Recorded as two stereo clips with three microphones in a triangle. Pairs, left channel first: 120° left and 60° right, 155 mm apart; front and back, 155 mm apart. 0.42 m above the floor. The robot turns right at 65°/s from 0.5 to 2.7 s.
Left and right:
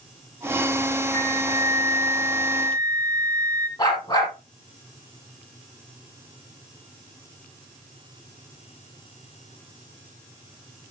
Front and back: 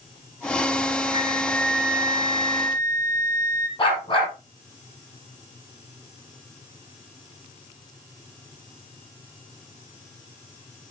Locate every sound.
1.1 s a flute: 50° left, 2.0 m; by 3.7 s 150° left, 2.0 m
3.8 s a dog barking: 60° left, 5.5 m